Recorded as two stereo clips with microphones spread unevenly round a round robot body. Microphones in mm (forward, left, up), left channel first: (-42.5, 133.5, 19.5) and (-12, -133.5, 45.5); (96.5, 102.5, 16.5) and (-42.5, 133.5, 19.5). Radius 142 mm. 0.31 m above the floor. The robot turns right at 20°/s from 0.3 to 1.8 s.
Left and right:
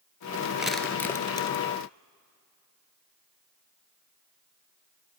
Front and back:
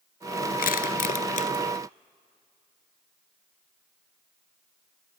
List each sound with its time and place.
0.6 s crushing: 5° left, 1.1 m; by 1.5 s 20° left, 1.1 m